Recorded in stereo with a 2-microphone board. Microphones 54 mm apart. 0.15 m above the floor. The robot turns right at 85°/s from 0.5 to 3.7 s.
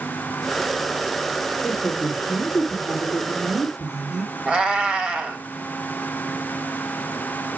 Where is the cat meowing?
20° right (ahead or behind), 2 m.